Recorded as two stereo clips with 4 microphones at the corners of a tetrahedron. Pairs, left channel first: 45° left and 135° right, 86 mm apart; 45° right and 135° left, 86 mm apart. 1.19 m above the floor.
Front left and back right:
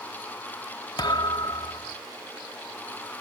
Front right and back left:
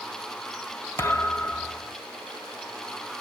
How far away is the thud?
About 1.3 m.